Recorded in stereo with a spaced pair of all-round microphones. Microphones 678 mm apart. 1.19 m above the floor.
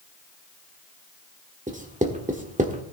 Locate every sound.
1.7 s writing: 10° right (ahead or behind), 1.6 m